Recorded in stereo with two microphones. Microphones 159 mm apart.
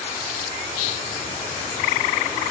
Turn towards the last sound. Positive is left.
No sound to turn to.